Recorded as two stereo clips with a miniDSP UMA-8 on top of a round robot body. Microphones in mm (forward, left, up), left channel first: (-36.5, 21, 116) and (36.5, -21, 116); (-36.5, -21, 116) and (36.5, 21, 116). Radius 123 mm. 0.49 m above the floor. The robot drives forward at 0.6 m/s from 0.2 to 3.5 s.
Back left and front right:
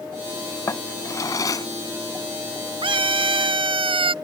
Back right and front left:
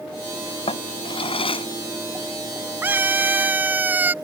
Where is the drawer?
150° right; by 1.7 s 160° right.